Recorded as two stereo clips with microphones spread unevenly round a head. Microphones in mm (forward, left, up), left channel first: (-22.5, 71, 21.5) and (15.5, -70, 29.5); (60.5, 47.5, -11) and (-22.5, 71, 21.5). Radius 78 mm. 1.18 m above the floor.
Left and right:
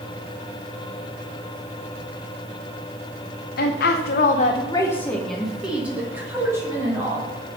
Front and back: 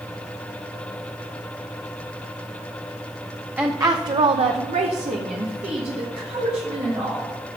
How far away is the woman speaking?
About 0.9 m.